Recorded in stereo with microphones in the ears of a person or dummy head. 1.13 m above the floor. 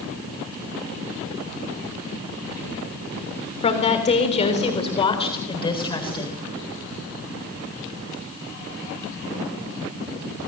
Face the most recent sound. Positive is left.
turn(degrees=25)  # may be behind; listen again after turning